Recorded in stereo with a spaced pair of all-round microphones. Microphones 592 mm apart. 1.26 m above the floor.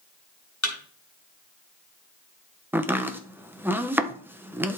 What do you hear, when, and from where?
0.6 s a thud: 30° left (ahead or behind), 3 m
2.7 s chopping: 5° right (ahead or behind), 0.7 m